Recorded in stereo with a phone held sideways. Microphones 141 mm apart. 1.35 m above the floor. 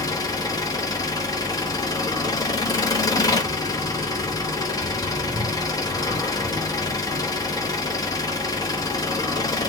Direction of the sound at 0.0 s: 25° left (ahead or behind).